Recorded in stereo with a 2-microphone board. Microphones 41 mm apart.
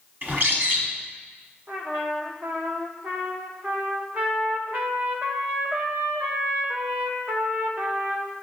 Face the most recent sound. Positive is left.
turn(degrees=-50)  # may be behind; listen again after turning